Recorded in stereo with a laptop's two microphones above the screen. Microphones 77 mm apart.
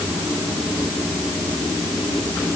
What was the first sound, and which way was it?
Only background noise.